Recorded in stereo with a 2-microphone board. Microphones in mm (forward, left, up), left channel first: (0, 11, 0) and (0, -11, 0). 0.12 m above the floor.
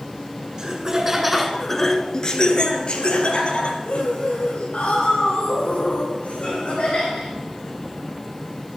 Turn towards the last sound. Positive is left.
turn(degrees=65)  # may be behind; listen again after turning